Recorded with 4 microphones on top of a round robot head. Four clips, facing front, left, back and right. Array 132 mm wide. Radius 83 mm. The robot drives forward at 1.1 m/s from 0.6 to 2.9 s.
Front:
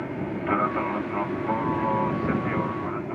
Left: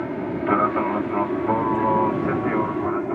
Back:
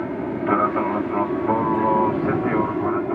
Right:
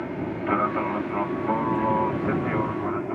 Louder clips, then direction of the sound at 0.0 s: Left 4 dB, back 5 dB; 140° left.